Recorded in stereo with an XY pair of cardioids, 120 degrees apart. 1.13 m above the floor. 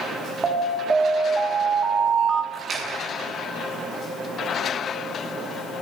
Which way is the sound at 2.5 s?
40° right.